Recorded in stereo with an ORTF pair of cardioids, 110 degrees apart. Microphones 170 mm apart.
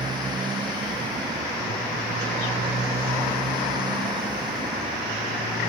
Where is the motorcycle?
25° right.